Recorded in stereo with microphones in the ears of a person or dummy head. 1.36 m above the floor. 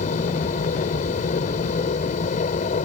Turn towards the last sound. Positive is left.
turn(degrees=45)  # may be behind; listen again after turning